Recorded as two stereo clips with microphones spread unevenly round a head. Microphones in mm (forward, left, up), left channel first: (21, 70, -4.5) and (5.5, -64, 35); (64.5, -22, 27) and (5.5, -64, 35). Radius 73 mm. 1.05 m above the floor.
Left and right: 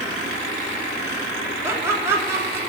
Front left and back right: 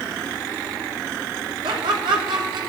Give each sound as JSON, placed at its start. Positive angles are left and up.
{"t": 1.6, "sound": "laughter", "azimuth_deg": -175, "distance_m": 2.5}